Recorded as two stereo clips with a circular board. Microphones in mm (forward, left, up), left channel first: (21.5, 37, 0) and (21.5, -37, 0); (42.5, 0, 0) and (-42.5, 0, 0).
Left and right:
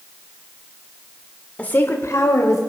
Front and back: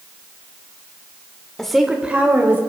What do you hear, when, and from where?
1.6 s a woman speaking: 70° left, 1.0 m; by 2.6 s 120° left, 1.9 m